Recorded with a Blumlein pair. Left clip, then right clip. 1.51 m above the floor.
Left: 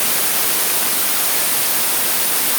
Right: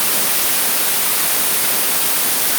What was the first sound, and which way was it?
Only background noise.